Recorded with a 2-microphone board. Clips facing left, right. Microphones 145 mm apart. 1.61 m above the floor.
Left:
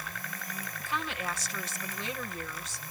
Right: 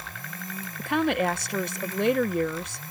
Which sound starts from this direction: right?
A woman speaking, at 0.8 s.